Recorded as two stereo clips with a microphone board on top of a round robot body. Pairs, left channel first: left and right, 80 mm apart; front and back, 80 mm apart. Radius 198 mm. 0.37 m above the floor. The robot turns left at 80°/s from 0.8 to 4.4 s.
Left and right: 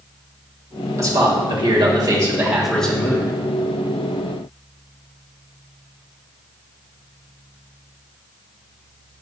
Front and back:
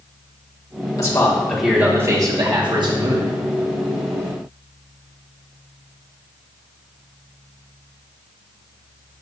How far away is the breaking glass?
I don't hear breaking glass.